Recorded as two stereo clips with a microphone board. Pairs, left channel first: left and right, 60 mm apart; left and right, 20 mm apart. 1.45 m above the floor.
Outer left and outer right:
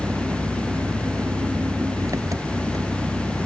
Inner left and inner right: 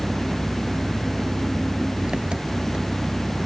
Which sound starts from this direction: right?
An engine running, at 0.0 s.